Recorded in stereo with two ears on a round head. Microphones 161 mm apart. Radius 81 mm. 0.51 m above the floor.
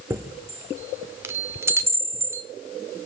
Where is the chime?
15° right (ahead or behind), 0.7 m.